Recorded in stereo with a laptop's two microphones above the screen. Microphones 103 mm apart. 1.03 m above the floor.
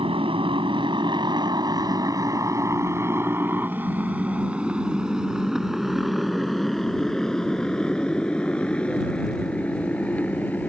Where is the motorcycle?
65° right (ahead or behind); by 10.7 s 15° left (ahead or behind).